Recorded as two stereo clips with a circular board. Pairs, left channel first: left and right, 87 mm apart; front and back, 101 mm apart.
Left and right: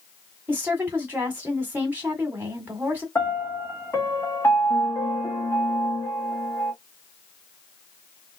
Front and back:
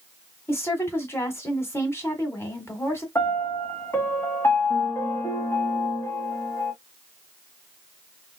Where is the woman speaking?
40° right, 1.5 m.